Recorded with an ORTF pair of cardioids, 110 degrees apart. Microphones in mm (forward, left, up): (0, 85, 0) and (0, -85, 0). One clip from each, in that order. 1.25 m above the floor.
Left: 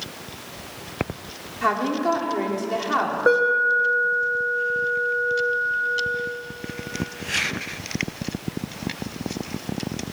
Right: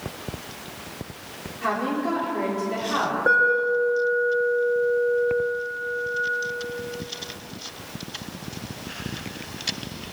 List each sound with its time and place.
1.6 s a woman speaking: 40° left, 4 m
3.3 s an alarm: 15° left, 2.5 m